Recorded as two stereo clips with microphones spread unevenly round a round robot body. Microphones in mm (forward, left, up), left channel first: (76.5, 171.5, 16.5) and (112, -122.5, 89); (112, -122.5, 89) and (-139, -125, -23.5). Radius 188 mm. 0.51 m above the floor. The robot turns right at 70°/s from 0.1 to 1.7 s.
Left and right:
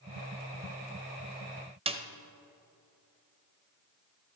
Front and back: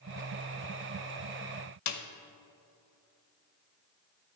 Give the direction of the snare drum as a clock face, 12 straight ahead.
12 o'clock.